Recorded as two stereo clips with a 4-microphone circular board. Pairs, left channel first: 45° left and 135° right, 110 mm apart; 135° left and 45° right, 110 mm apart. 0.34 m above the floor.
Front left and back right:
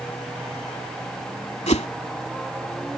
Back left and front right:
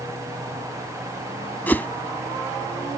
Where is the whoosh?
60° left.